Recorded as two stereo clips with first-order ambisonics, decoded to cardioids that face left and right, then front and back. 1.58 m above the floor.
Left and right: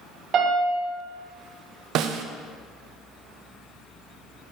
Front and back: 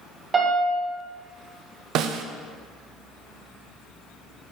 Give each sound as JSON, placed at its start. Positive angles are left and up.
{"t": 0.3, "sound": "a piano", "azimuth_deg": -125, "distance_m": 1.7}
{"t": 1.9, "sound": "a snare drum", "azimuth_deg": -135, "distance_m": 0.5}